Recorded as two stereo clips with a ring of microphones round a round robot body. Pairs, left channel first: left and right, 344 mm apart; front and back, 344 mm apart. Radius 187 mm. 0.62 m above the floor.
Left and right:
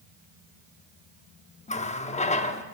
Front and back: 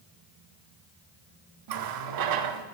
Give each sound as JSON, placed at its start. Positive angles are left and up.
{"t": 1.7, "sound": "a running tap", "azimuth_deg": 160, "distance_m": 0.9}